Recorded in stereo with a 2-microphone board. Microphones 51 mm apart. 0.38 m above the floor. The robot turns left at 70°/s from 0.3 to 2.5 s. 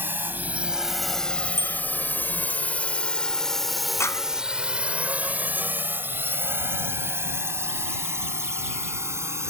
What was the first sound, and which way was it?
A drone, 40° right (ahead or behind).